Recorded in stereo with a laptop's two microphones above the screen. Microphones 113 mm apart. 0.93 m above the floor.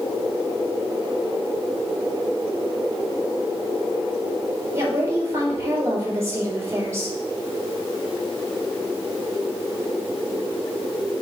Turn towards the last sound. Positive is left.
turn(degrees=-30)  # may be behind; listen again after turning